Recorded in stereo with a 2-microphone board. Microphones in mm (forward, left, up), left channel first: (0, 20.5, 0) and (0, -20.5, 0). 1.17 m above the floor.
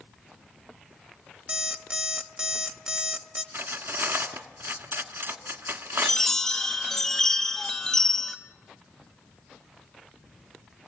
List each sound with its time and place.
1.5 s an alarm clock: 25° right (ahead or behind), 1.0 m
3.5 s cutlery clinking: 65° right (ahead or behind), 1.5 m
6.0 s a chime: 10° left (ahead or behind), 1.5 m